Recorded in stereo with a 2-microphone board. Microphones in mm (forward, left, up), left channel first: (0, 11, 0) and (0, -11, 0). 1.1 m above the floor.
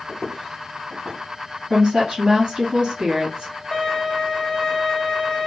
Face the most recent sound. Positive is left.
turn(degrees=45)  # may be behind; listen again after turning